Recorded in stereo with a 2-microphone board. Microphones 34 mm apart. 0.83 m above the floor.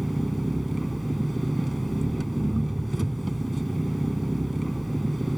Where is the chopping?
I don't hear chopping.